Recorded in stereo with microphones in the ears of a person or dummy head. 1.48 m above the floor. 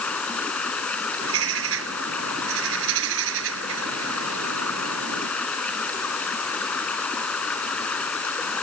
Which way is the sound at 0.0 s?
10° left (ahead or behind).